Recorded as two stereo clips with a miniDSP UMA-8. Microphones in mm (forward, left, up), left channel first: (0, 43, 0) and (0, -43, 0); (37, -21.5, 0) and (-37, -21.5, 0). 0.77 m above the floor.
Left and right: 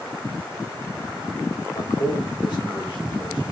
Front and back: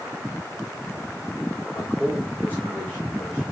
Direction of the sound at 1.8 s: 55° left.